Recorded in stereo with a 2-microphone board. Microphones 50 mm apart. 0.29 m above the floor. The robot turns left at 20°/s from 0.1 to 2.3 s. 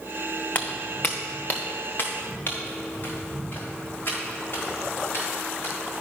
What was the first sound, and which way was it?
Footsteps, 35° left (ahead or behind).